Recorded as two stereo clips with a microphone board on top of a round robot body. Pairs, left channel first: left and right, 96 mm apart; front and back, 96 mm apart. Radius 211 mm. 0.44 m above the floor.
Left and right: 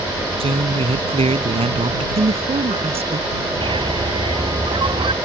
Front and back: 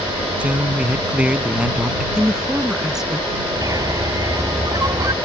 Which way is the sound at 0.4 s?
100° right.